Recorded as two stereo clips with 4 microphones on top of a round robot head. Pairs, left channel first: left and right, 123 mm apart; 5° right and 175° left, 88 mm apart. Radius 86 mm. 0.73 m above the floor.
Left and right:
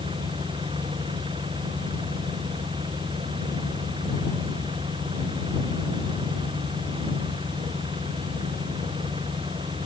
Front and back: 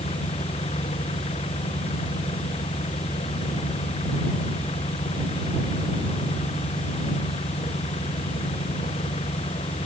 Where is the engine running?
30° right.